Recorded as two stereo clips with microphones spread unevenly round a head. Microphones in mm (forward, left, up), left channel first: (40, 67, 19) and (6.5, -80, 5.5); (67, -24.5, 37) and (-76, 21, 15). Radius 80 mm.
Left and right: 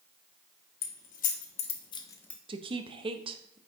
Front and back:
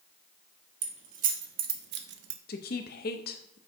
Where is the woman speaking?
45° right, 0.9 m.